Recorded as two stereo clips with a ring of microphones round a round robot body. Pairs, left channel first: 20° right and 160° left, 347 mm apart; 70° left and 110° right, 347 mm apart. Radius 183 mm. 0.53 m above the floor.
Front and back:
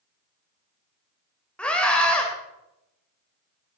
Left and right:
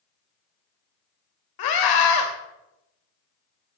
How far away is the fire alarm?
No fire alarm in this recording.